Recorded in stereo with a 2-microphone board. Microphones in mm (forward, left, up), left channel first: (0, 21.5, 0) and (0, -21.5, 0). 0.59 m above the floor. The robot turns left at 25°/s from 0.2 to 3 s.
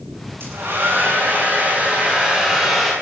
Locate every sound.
0.4 s a hair dryer: 110° right, 8 m; by 2.9 s 175° right, 8 m